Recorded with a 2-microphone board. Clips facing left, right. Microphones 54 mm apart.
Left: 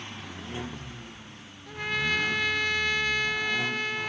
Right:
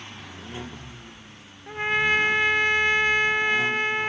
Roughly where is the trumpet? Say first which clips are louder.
Right 6 dB; right.